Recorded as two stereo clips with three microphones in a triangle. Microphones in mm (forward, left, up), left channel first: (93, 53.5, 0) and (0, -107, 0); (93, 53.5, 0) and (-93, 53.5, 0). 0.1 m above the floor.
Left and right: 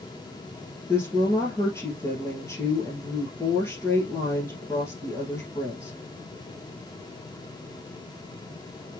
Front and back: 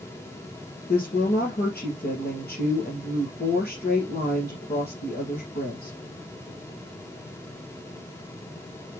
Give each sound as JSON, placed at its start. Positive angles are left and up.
{"t": 0.9, "sound": "a woman speaking", "azimuth_deg": -15, "distance_m": 2.5}